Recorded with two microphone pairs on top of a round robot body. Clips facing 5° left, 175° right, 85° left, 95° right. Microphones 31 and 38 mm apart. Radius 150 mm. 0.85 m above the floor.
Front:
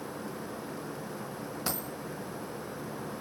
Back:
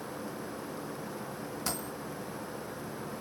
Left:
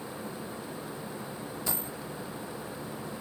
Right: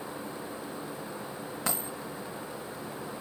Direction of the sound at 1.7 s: 65° right.